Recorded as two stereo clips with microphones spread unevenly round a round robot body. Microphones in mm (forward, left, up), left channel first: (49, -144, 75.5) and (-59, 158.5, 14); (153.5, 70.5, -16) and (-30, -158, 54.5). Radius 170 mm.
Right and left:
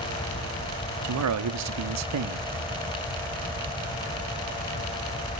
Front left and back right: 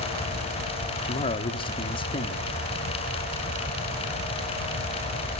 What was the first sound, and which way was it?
A man speaking, 115° left.